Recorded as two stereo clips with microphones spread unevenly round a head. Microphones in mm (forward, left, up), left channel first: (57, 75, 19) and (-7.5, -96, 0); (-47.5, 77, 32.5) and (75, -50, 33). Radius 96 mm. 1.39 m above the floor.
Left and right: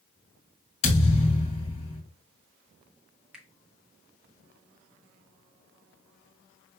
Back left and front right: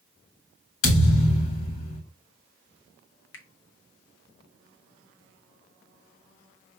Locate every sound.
0.8 s a thud: 130° left, 2 m
3.3 s a finger snap: 160° left, 0.8 m